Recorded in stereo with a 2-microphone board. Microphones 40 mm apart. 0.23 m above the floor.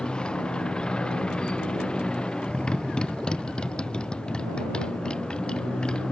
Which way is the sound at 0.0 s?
20° left (ahead or behind).